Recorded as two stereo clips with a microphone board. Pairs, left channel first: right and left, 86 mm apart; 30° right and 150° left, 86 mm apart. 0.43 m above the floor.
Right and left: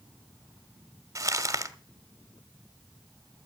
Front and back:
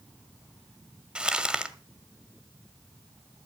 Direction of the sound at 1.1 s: 80° left.